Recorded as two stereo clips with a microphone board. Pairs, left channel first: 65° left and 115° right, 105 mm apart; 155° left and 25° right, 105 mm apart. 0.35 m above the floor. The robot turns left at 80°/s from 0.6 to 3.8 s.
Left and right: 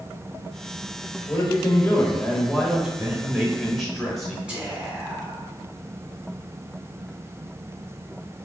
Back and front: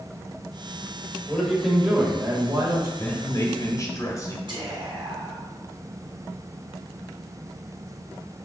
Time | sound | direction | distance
1.3 | a man speaking | 90° left | 1.0 m
3.0 | a man speaking | 140° right | 1.2 m
4.5 | whispering | 35° right | 2.0 m